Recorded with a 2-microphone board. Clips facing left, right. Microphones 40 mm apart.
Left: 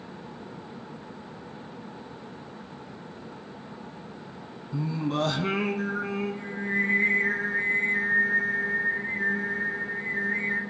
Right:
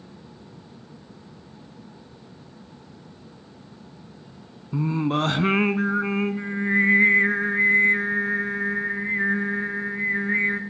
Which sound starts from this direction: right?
Singing, at 4.7 s.